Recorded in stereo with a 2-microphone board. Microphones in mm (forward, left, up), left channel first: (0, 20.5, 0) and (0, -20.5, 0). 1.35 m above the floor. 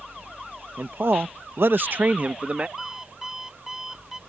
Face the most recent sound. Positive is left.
turn(degrees=-10)  # may be behind; listen again after turning